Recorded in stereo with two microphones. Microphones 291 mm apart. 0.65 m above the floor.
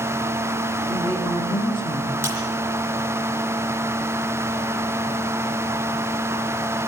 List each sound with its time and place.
0.9 s a woman speaking: 15° left (ahead or behind), 5.5 m
2.2 s breaking glass: 10° right (ahead or behind), 9.5 m